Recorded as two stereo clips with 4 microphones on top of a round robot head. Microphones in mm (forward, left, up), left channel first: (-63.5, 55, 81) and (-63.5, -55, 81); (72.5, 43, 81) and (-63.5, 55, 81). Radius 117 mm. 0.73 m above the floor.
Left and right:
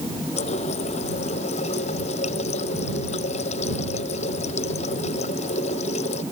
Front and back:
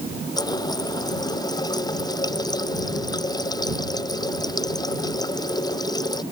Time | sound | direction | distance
0.4 | a running tap | 55° left | ?